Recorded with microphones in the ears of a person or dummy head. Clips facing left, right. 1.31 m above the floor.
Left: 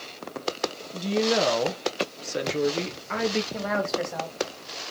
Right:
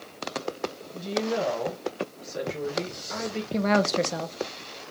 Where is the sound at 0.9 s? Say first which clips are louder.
Left 4 dB; 65° left (ahead or behind), 0.8 m.